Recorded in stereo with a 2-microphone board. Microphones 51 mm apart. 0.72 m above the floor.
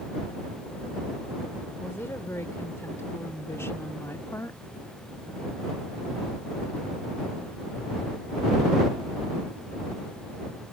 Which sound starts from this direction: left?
A woman speaking, at 1.8 s.